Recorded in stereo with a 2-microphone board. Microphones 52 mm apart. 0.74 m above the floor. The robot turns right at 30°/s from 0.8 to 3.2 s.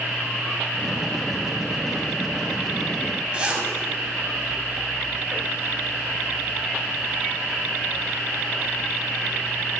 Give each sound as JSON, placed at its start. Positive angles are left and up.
{"t": 3.3, "sound": "a zipper", "side_deg": -20, "distance_m": 5.0}